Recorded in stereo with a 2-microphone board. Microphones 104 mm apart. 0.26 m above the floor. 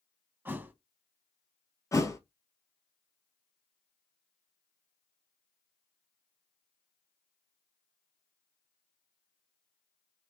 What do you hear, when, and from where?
0.5 s a thud: 20° right (ahead or behind), 0.6 m
1.9 s a thud: 30° left (ahead or behind), 0.7 m